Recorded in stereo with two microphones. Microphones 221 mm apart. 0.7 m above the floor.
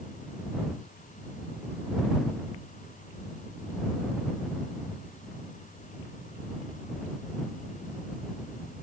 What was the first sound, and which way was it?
Only background noise.